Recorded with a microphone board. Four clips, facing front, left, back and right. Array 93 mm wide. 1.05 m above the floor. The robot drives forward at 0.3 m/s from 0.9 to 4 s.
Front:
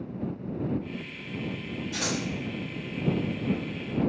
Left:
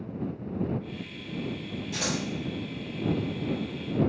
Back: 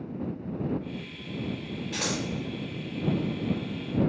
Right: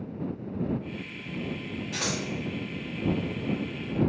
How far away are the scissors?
About 1.7 m.